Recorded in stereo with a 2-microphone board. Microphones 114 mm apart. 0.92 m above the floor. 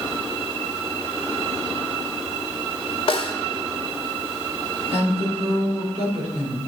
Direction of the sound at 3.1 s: 50° left (ahead or behind).